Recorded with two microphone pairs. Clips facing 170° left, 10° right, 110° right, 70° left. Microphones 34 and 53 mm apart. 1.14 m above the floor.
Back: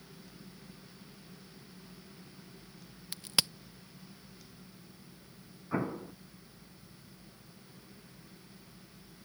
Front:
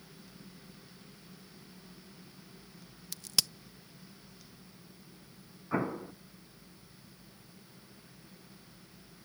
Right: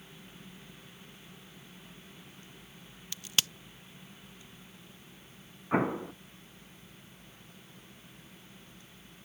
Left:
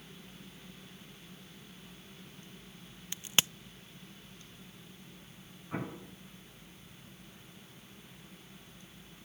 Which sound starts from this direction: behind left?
A crack, at 3.1 s.